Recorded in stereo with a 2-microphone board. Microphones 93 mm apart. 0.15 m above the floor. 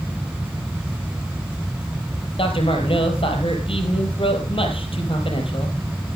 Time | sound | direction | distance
2.4 | a man speaking | 65° left (ahead or behind) | 4 m